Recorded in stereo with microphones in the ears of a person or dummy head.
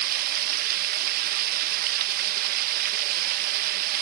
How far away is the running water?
About 1.3 m.